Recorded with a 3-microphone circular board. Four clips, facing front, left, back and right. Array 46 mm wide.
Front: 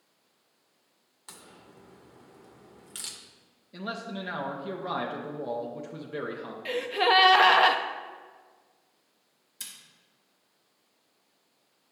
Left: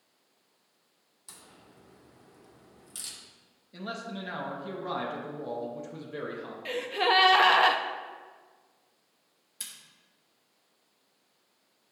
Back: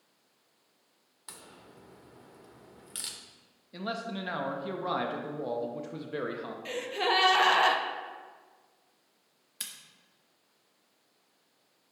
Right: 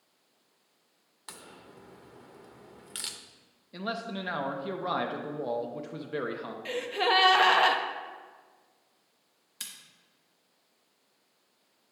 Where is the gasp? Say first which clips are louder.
Left 1 dB, front 5 dB; 10° left, 0.5 m.